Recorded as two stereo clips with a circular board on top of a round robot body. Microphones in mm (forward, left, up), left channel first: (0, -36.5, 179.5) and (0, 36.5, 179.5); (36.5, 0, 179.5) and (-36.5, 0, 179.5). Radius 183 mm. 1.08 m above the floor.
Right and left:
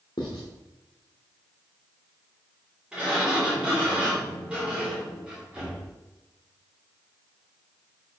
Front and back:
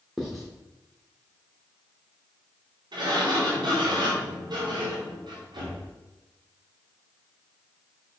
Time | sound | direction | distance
0.2 | writing | 90° right | 0.8 m
2.9 | a sliding door | 165° left | 3 m